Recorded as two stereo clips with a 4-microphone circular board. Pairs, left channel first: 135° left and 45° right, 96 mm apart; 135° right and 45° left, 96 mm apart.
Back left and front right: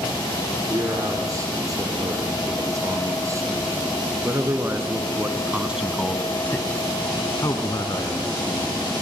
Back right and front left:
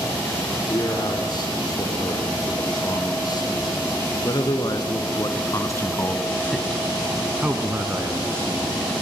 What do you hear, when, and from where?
0.7 s a man speaking: 95° right, 5 m; by 8.8 s 100° left, 2.5 m